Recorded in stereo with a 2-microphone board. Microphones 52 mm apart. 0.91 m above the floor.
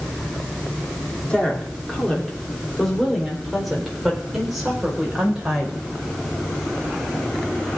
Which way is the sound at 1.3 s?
20° left (ahead or behind).